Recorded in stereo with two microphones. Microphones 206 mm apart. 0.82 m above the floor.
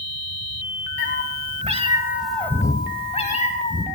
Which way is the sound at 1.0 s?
60° right (ahead or behind).